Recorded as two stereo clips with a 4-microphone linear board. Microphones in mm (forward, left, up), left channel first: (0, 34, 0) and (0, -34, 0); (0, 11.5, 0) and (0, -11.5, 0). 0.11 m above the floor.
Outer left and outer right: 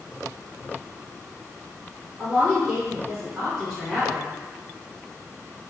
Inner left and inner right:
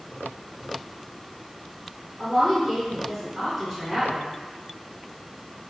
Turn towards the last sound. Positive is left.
turn(degrees=-10)  # may be behind; listen again after turning